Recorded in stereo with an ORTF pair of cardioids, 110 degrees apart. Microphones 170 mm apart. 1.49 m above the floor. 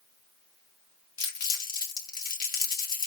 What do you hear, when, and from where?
1.2 s crumpling: 60° left, 1.8 m